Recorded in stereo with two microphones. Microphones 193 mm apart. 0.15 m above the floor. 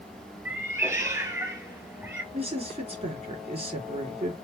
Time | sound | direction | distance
0.5 | a cat meowing | 10° right (ahead or behind) | 1.5 m
2.3 | a woman speaking | 35° right (ahead or behind) | 2.5 m